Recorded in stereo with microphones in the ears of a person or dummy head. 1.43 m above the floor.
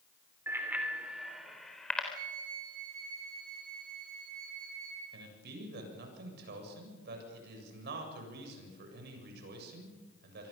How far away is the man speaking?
About 7.5 m.